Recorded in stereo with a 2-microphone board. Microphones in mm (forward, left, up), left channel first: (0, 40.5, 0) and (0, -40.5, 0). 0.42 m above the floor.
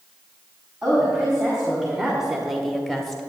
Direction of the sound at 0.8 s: 10° right (ahead or behind).